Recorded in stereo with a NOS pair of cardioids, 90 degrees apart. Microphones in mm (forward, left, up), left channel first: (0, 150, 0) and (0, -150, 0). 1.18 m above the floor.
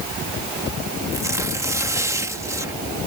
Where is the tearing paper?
10° right.